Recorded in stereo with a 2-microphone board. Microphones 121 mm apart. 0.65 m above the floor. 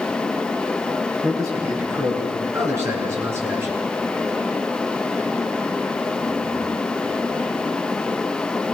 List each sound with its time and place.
1.2 s a man speaking: 30° right (ahead or behind), 8 m; by 3.8 s 20° right (ahead or behind), 6 m